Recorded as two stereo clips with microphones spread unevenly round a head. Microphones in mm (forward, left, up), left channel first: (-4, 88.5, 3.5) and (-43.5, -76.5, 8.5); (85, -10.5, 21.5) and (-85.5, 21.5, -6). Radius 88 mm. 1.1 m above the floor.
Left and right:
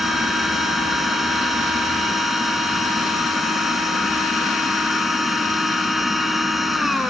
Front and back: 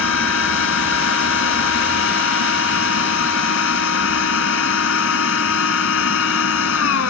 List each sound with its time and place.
0.0 s a machine running: 15° right